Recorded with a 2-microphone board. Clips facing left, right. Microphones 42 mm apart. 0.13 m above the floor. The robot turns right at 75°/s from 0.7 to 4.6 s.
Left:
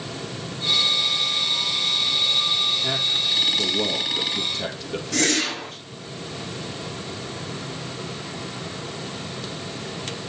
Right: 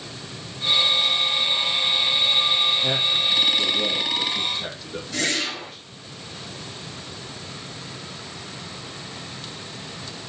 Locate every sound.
2.8 s a man speaking: 20° right (ahead or behind), 3 m; by 5.9 s 60° left (ahead or behind), 3 m
5.1 s a whoosh: 60° left (ahead or behind), 6.5 m